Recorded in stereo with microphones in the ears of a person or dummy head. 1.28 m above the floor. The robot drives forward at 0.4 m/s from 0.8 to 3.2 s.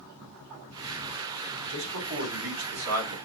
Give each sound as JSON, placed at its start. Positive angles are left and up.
{"t": 1.7, "sound": "a man speaking", "side_deg": -85, "distance_m": 4.0}